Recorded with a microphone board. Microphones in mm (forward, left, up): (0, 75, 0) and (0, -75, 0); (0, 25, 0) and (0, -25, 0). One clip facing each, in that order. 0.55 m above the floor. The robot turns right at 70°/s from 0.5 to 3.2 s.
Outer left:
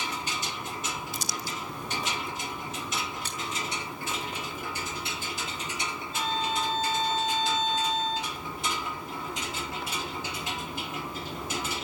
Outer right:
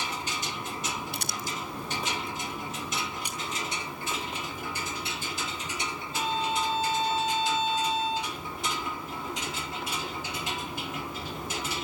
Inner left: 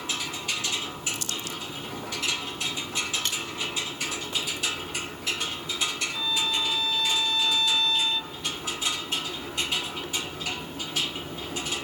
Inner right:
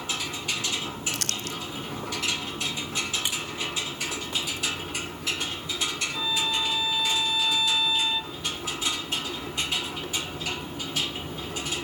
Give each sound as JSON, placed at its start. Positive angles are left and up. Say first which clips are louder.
{"t": 1.1, "sound": "crumpling", "louder": "even, inner right 1 dB", "side_deg": -65, "distance_m": 1.0}
{"t": 3.2, "sound": "a splash", "louder": "even, even", "side_deg": -15, "distance_m": 3.5}
{"t": 6.1, "sound": "a violin", "louder": "outer right 1 dB, inner right 1 dB", "side_deg": -10, "distance_m": 1.0}